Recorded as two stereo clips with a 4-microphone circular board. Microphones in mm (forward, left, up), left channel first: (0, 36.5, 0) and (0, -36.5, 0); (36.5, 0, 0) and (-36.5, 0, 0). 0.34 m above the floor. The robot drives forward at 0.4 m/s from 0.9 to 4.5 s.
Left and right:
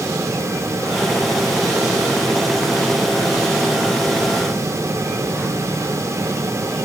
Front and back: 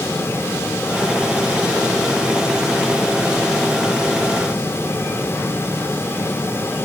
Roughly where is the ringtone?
I don't hear a ringtone.